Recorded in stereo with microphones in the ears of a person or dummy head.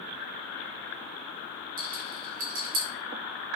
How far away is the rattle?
About 0.9 m.